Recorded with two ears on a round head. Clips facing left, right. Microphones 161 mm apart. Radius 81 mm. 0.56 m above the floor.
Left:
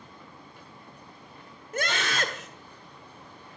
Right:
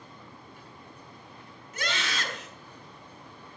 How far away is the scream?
About 1.7 m.